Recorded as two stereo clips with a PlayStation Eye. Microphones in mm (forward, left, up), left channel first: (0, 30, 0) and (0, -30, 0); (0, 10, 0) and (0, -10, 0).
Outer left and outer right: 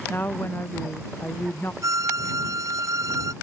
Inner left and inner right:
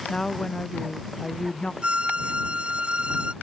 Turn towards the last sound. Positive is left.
turn(degrees=-55)  # may be behind; listen again after turning